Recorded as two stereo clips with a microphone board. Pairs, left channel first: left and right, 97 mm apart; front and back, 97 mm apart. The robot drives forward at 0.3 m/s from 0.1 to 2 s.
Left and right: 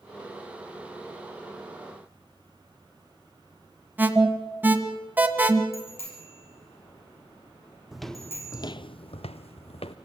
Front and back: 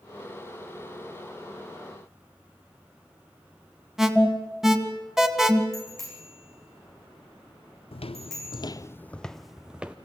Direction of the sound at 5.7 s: 90° left.